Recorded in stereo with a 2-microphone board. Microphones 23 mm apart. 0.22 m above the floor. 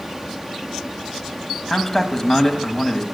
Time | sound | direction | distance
1.7 | a man speaking | 5° left (ahead or behind) | 1.5 m